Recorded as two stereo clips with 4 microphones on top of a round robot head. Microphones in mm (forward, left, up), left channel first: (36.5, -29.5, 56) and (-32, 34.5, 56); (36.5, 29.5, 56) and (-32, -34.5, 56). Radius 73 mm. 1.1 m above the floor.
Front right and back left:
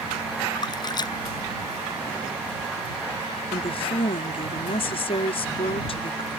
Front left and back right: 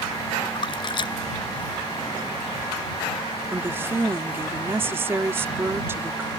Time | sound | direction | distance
0.6 | a splash | 5° left | ?
3.5 | a woman speaking | 70° right | ?